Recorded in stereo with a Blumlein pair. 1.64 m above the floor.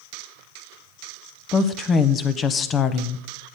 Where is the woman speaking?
25° left, 0.6 m.